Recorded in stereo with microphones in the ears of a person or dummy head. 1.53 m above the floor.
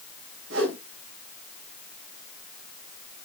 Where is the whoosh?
85° right, 3 m.